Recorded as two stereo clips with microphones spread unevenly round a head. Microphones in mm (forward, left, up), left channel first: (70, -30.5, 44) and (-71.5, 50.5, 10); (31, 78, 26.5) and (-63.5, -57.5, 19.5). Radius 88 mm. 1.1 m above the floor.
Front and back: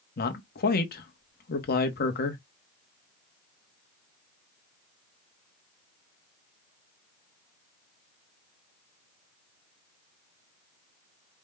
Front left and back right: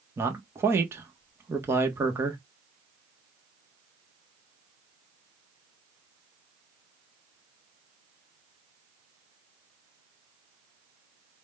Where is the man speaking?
55° right, 1.1 m.